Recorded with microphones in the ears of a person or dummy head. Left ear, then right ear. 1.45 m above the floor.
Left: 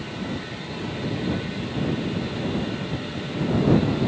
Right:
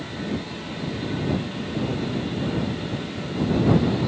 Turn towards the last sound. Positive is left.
No sound to turn to.